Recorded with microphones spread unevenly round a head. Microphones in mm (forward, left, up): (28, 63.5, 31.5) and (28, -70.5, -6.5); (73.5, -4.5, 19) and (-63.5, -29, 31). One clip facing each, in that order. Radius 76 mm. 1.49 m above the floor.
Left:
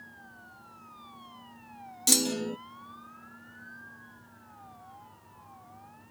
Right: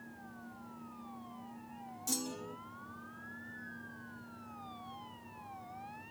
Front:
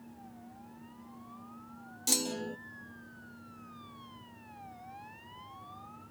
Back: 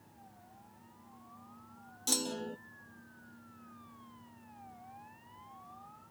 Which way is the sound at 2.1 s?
95° left.